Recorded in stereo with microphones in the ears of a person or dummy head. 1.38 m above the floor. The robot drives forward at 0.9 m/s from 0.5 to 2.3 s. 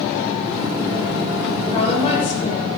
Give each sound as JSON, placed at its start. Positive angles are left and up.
{"t": 1.7, "sound": "a woman speaking", "side_deg": 35, "distance_m": 6.0}